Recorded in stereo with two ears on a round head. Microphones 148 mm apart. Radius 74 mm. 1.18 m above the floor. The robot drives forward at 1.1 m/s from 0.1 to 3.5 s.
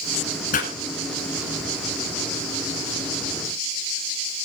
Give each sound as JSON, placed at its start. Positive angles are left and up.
{"t": 0.5, "sound": "a pop", "side_deg": 50, "distance_m": 8.5}